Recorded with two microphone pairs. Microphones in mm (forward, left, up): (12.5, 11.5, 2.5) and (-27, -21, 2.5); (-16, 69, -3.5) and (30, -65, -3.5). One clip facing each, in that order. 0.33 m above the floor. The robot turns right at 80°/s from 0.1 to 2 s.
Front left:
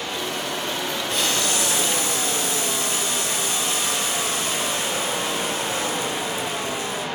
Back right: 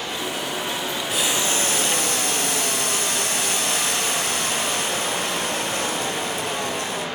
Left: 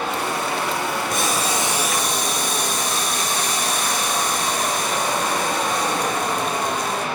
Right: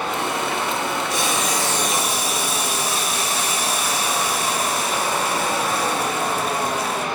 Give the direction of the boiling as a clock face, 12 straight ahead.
8 o'clock.